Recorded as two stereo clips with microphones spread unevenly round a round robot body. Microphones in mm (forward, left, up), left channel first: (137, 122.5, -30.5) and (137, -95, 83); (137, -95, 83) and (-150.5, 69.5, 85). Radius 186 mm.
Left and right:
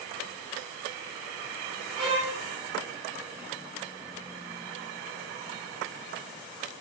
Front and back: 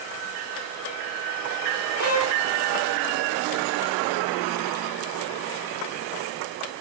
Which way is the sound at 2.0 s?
165° right.